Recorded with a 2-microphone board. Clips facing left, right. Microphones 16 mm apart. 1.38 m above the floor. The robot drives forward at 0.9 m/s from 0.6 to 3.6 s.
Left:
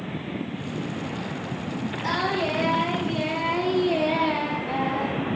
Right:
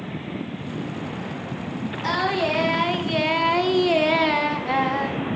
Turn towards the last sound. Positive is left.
turn(degrees=-45)  # may be behind; listen again after turning